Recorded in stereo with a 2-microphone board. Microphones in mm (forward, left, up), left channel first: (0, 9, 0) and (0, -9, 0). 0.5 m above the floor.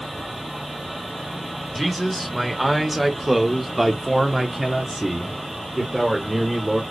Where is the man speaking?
Centre (ahead or behind), 1.8 m; by 6.8 s 15° right (ahead or behind), 1.7 m.